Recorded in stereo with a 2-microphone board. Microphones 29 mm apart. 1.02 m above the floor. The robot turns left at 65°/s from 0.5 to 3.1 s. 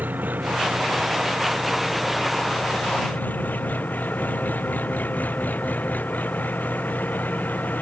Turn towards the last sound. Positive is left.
turn(degrees=95)